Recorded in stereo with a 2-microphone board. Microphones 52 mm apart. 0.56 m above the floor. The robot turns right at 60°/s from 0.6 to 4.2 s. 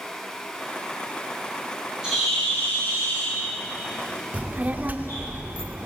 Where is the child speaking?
35° right (ahead or behind), 0.6 m.